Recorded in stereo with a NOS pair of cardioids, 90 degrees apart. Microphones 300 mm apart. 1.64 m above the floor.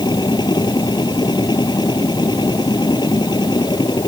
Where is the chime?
No chime in this recording.